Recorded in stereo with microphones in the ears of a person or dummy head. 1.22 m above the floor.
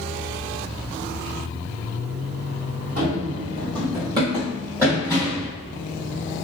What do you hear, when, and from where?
3.0 s running footsteps: 50° right (ahead or behind), 1.9 m; by 5.5 s 5° right (ahead or behind), 2.5 m